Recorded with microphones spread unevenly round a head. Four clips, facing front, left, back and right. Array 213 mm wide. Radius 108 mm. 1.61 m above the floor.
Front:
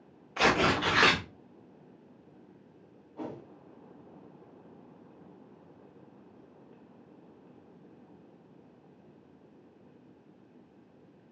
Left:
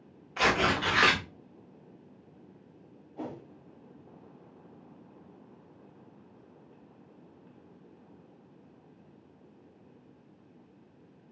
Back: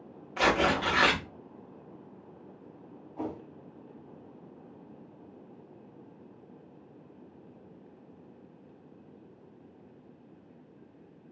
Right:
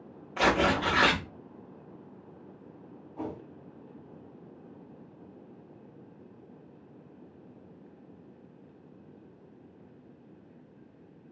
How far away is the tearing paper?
About 0.8 m.